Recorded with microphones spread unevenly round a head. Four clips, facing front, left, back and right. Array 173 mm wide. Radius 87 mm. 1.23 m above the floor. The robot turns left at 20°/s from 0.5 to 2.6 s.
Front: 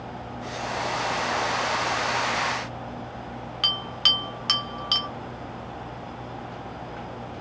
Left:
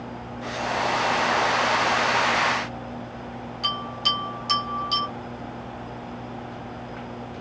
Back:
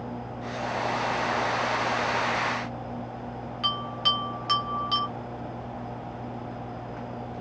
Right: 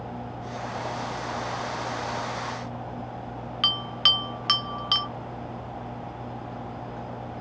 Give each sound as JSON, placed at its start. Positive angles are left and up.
{"t": 3.6, "sound": "a bell", "azimuth_deg": -65, "distance_m": 0.9}